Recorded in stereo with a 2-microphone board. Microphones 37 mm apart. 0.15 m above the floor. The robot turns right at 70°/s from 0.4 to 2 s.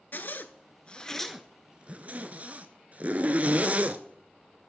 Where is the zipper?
55° left (ahead or behind), 0.6 m; by 4.0 s 40° right (ahead or behind), 0.6 m.